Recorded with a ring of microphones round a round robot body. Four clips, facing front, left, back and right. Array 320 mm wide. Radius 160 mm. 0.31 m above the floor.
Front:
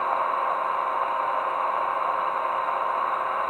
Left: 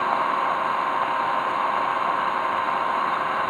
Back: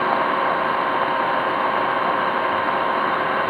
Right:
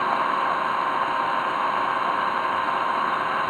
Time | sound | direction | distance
0.0 | an engine running | 175° right | ?